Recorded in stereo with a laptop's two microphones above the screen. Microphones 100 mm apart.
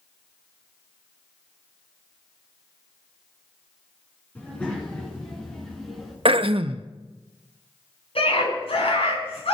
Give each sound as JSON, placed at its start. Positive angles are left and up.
{"t": 4.3, "sound": "a child speaking", "side_deg": 15, "distance_m": 9.5}
{"t": 6.2, "sound": "throat clearing", "side_deg": -65, "distance_m": 0.7}
{"t": 8.2, "sound": "a scream", "side_deg": 70, "distance_m": 6.5}